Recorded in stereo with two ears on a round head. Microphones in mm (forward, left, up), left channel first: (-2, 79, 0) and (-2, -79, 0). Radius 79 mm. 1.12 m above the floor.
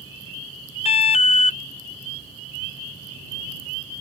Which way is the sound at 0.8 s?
35° left (ahead or behind).